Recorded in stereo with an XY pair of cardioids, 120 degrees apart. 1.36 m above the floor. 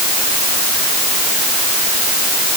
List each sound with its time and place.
Only background noise.